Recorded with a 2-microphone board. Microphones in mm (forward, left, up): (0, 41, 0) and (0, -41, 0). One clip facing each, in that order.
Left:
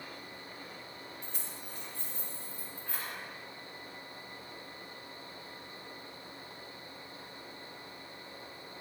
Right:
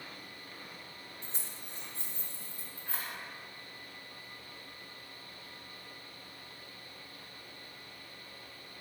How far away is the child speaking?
No child speaking in this recording.